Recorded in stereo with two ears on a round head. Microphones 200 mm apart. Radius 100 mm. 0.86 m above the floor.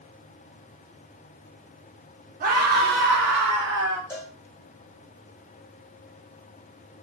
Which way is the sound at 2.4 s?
40° right (ahead or behind).